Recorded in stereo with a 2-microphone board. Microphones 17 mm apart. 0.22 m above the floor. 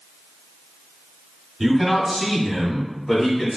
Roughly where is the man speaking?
Centre.